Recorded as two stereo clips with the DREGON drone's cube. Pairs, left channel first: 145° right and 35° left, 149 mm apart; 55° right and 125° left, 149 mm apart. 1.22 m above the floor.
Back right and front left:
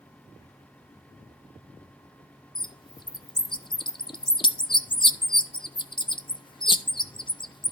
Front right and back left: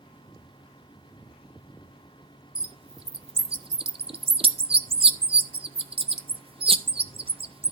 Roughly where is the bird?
Behind.